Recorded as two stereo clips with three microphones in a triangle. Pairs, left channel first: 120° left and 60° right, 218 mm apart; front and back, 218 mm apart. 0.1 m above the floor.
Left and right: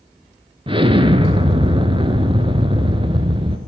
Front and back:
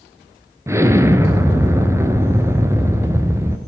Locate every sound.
0.7 s an explosion: 110° right, 1.0 m